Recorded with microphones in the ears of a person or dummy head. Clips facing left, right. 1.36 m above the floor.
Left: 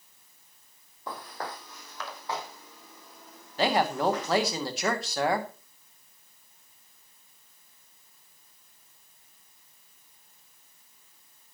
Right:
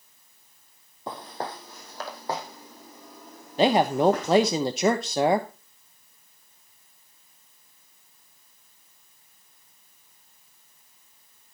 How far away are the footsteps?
About 1.9 m.